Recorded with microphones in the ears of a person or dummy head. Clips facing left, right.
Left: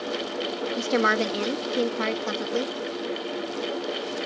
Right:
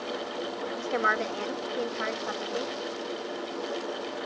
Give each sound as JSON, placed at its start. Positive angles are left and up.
{"t": 0.8, "sound": "a woman speaking", "side_deg": 55}